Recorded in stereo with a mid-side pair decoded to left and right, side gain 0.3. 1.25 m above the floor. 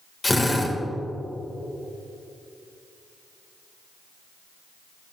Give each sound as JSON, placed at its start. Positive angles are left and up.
{"t": 0.2, "sound": "a drill", "azimuth_deg": 30, "distance_m": 3.0}